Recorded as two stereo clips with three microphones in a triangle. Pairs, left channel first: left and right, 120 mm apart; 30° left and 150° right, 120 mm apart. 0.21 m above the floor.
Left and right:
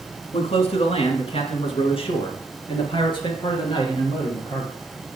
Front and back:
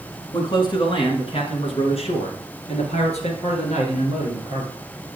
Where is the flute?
No flute in this recording.